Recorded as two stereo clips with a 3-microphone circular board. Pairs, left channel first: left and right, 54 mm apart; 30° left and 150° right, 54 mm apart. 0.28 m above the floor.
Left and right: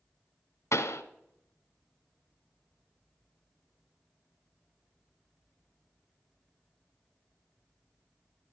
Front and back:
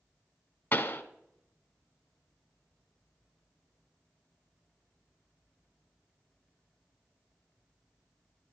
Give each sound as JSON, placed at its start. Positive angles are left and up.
{"t": 0.7, "sound": "a pop", "azimuth_deg": 80, "distance_m": 0.9}